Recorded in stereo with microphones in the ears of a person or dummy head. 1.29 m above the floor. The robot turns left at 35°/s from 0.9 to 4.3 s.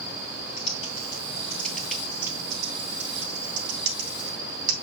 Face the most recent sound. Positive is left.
turn(degrees=-75)  # may be behind; listen again after turning